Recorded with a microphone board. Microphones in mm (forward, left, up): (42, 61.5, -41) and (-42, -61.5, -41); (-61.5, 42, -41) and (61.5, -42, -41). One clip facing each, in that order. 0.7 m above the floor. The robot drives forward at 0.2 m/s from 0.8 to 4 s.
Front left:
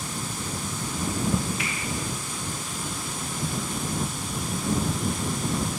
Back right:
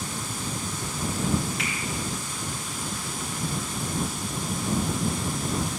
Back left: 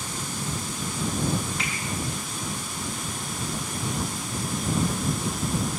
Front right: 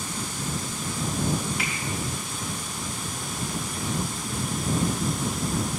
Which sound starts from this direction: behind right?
A finger snap, at 1.6 s.